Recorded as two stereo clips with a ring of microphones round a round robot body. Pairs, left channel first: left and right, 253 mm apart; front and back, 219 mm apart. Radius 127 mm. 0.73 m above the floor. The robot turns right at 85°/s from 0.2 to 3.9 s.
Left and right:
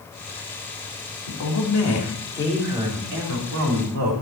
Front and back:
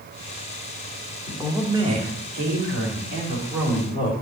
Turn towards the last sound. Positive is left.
turn(degrees=-65)